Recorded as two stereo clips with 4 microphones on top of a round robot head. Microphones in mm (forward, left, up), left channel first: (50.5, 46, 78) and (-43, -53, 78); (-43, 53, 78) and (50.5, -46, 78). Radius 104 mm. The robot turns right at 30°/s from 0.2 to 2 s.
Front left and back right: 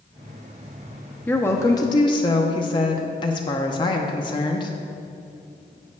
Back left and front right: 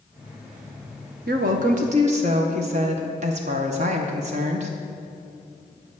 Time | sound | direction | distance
1.3 | a woman speaking | 30° right | 0.7 m